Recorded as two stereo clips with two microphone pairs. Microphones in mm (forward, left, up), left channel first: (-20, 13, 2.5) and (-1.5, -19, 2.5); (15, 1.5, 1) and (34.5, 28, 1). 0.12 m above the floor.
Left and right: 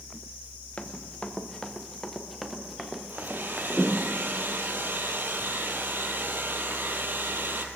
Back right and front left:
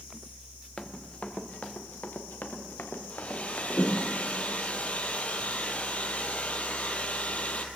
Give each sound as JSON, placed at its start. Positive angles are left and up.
{"t": 0.8, "sound": "running footsteps", "azimuth_deg": 170, "distance_m": 1.2}
{"t": 3.1, "sound": "a hair dryer", "azimuth_deg": -80, "distance_m": 1.3}